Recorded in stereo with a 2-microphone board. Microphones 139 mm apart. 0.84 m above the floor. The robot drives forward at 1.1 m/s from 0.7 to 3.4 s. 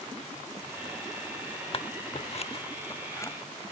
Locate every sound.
1.7 s scissors: 45° left (ahead or behind), 0.8 m; by 3.3 s 20° left (ahead or behind), 1.5 m